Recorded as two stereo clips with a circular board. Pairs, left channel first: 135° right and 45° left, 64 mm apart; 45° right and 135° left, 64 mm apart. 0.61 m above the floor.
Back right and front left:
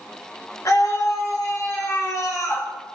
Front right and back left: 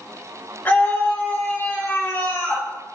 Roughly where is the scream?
Right.